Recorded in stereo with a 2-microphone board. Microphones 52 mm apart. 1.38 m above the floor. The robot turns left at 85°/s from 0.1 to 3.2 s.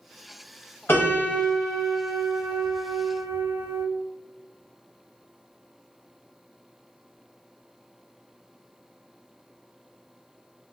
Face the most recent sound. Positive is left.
turn(degrees=-135)